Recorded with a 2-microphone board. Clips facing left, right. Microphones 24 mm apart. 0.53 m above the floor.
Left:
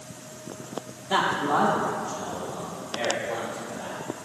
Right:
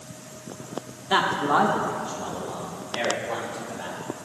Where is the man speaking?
25° right (ahead or behind), 0.8 m; by 4.0 s 55° right (ahead or behind), 2 m.